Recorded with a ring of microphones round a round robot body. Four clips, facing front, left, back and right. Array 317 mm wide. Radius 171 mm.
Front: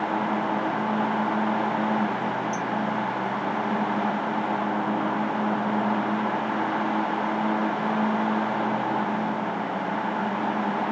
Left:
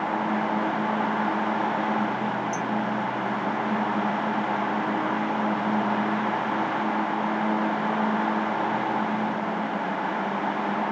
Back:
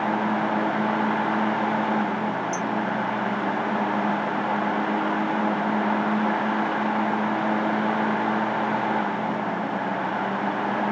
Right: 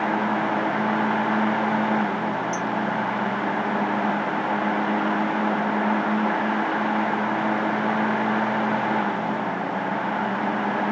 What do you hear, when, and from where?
2.5 s a clink: 170° right